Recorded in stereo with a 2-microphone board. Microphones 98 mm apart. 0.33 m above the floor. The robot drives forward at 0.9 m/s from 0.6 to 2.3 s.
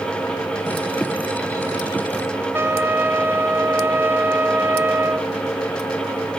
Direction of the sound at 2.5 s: 20° right (ahead or behind).